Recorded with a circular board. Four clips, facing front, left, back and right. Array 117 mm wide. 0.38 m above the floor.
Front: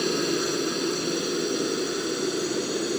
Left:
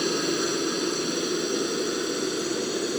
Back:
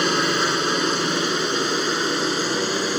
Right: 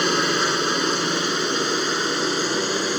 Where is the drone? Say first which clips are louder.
Right 4 dB, back 4 dB; 140° right.